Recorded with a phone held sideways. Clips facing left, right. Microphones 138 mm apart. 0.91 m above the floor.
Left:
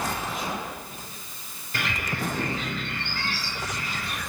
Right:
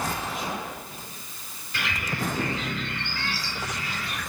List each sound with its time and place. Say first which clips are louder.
1.7 s a bird: left 1 dB; 45° left (ahead or behind), 2.5 m